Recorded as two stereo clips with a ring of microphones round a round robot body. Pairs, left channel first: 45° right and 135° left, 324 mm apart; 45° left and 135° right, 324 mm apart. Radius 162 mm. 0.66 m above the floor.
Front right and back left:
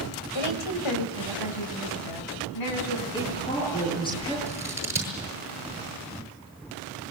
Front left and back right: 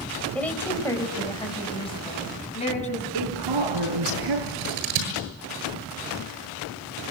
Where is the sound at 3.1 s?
120° right, 10 m.